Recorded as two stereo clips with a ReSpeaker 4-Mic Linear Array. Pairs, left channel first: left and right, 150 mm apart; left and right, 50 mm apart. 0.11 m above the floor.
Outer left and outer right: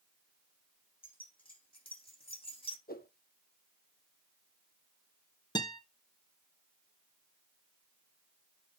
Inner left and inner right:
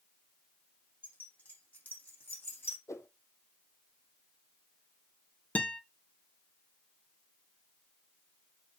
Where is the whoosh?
75° left (ahead or behind), 1.2 m.